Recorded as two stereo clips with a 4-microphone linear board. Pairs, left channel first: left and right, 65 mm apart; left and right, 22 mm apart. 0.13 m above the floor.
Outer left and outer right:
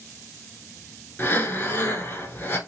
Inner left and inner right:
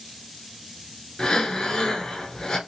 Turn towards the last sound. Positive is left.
turn(degrees=30)  # may be behind; listen again after turning